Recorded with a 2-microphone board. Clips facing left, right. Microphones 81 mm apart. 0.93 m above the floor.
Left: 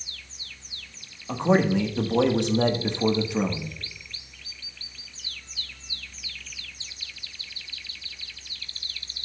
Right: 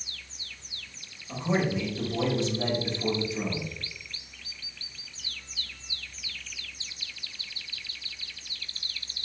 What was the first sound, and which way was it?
A man speaking, 65° left (ahead or behind).